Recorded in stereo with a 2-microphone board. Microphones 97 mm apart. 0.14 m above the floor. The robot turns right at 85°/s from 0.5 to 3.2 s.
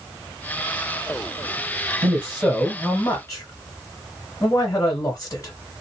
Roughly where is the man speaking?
Ahead right.